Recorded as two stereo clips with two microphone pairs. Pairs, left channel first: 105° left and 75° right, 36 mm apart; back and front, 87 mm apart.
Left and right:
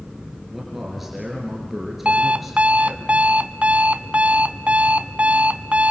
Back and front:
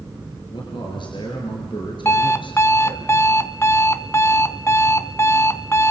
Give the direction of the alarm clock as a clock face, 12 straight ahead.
4 o'clock.